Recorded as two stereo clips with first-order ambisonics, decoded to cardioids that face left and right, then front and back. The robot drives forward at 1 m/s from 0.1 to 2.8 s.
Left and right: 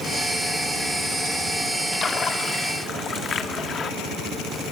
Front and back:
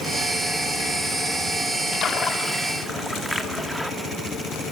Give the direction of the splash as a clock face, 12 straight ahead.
11 o'clock.